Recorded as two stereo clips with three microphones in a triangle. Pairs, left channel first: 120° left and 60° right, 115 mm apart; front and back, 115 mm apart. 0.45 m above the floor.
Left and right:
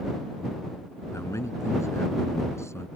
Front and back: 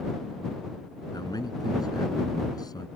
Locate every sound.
1.1 s a man speaking: 55° left